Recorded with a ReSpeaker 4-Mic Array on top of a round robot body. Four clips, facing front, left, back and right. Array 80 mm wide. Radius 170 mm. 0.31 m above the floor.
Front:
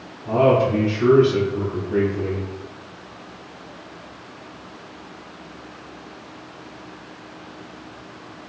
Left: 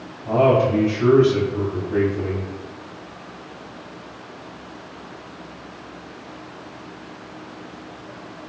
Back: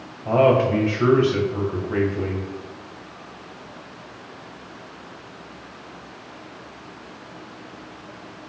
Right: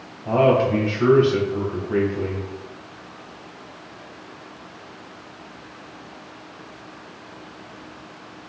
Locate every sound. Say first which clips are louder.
0.2 s a man speaking: left 1 dB, even; 155° right, 3 m